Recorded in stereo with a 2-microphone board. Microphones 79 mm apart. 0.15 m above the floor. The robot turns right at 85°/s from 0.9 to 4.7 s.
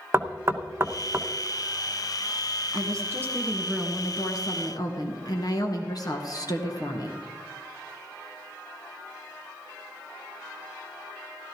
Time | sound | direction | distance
0.1 | knocking | 35° right (ahead or behind) | 0.8 m
2.7 | a woman speaking | 80° right | 2 m